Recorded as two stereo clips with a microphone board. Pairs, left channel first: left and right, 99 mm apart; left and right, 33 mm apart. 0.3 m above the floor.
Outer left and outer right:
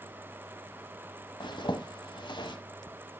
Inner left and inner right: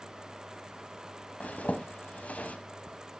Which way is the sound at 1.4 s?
55° left (ahead or behind).